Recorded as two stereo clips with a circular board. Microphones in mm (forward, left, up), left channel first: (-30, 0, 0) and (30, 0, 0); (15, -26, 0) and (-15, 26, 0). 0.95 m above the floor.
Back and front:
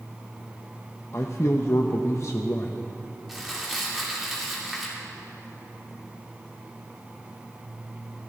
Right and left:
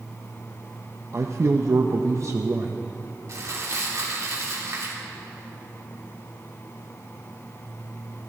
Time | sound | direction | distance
1.1 | a man speaking | 150° left | 0.6 m
3.3 | crumpling | 90° left | 2.5 m